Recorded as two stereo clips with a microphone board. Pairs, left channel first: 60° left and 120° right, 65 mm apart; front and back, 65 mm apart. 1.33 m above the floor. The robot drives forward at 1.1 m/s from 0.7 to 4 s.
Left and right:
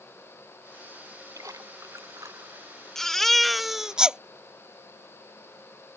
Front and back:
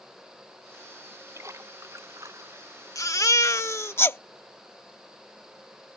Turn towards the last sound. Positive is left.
turn(degrees=-40)